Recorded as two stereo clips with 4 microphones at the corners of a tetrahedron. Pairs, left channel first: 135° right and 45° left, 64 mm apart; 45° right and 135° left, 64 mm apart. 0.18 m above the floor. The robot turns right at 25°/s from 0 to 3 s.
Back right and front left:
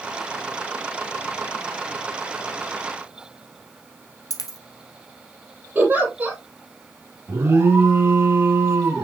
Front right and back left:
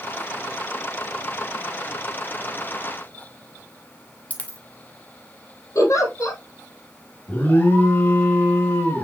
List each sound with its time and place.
4.3 s a dropped coin: 115° right, 1.5 m
5.8 s a giggle: 15° right, 4.5 m
7.3 s an alarm: 10° left, 2.5 m